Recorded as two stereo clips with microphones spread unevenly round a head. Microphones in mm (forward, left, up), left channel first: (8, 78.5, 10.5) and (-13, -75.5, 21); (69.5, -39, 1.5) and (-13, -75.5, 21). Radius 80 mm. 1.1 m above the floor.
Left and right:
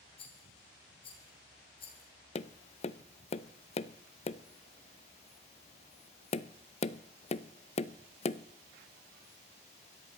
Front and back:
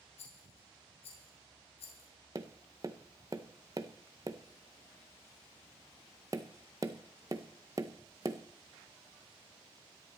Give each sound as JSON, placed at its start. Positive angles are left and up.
{"t": 0.2, "sound": "a rattle", "azimuth_deg": 25, "distance_m": 3.5}
{"t": 2.4, "sound": "tapping", "azimuth_deg": 135, "distance_m": 0.5}